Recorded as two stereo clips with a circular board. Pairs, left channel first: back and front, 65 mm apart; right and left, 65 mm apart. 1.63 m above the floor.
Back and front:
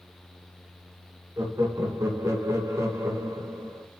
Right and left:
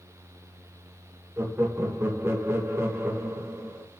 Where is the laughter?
35° left, 1.9 m.